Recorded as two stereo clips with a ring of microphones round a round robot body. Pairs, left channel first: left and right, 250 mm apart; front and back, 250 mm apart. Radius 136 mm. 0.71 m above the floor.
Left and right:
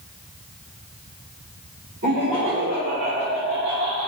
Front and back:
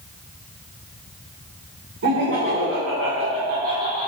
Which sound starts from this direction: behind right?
Laughter, at 2.0 s.